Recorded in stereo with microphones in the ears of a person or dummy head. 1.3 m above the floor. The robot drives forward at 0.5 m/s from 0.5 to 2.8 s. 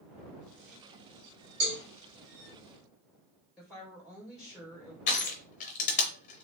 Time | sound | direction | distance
1.6 | a cowbell | 75° right (ahead or behind) | 1.7 m
3.6 | a woman speaking | centre (ahead or behind) | 2.0 m
5.1 | crushing | 40° left (ahead or behind) | 0.6 m